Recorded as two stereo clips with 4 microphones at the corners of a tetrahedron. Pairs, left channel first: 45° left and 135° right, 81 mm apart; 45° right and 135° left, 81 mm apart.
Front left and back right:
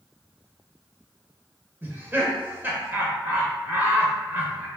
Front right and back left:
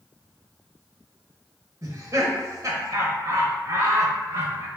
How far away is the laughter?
About 1.3 m.